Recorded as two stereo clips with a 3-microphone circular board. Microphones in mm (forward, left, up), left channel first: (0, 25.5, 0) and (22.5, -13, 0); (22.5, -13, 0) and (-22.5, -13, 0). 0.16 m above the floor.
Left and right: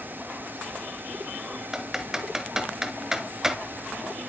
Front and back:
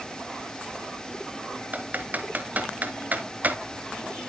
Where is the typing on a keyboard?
140° right, 1.2 m.